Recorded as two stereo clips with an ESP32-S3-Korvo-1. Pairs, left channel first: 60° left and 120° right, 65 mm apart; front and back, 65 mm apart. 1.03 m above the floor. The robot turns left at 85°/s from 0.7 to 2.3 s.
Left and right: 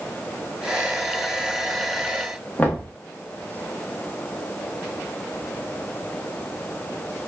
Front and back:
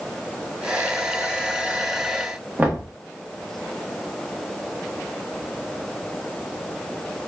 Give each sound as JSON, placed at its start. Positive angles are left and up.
{"t": 2.6, "sound": "knocking", "azimuth_deg": 120, "distance_m": 1.2}